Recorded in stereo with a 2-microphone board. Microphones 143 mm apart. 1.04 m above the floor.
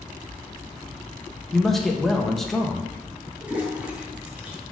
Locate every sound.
1.5 s a man speaking: centre (ahead or behind), 0.9 m
3.4 s a toilet flushing: 10° right (ahead or behind), 1.4 m